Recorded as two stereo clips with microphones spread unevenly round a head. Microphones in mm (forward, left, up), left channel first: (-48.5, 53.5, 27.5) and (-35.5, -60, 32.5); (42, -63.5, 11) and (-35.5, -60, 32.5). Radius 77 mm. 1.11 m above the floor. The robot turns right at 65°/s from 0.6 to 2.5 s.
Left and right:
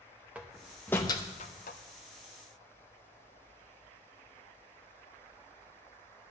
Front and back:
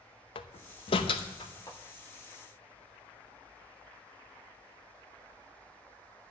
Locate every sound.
0.3 s a door slam: straight ahead, 0.7 m; by 1.8 s 75° left, 0.7 m